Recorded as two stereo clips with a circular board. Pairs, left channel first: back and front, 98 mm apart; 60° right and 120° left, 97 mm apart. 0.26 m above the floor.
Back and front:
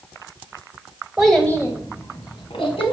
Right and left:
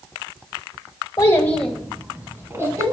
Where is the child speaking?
80° right, 0.7 m; by 2.9 s 175° left, 1.8 m.